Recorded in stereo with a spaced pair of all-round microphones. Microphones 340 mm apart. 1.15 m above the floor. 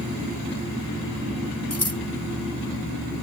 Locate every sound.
1.7 s scissors: 45° left (ahead or behind)